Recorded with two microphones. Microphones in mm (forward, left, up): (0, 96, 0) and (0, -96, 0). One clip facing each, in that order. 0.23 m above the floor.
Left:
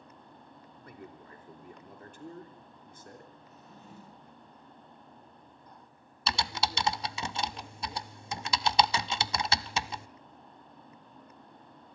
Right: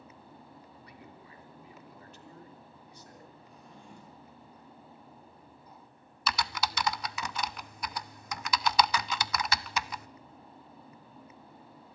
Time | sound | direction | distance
0.8 | a man speaking | 45° left (ahead or behind) | 3 m
3.4 | a drawer | 5° left (ahead or behind) | 5.5 m
6.3 | typing on a keyboard | 25° left (ahead or behind) | 0.5 m